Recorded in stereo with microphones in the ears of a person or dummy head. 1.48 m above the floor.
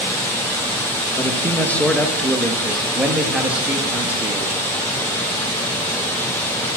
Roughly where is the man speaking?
Centre.